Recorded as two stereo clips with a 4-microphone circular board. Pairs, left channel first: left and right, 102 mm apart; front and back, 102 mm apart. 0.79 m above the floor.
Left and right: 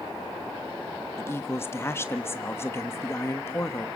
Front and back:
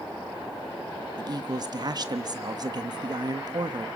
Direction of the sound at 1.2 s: 150° left.